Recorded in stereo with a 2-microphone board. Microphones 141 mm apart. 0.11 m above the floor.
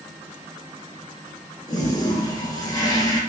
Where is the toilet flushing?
30° left (ahead or behind), 0.7 m.